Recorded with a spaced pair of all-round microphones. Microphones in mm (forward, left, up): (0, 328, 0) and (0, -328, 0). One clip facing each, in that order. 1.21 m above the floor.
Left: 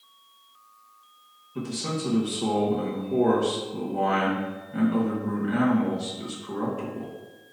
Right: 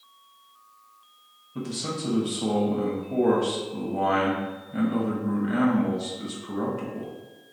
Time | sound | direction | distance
1.6 | a man speaking | 10° right (ahead or behind) | 0.6 m